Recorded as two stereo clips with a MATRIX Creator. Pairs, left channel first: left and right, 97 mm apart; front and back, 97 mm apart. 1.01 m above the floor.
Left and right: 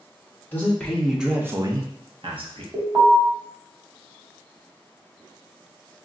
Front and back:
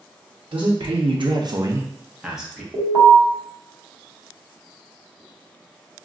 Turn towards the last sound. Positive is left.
turn(degrees=-135)